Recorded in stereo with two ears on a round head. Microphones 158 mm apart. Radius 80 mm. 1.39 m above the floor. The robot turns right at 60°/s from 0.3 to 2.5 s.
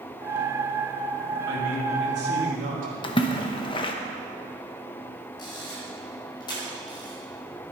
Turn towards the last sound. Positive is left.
turn(degrees=25)  # may be behind; listen again after turning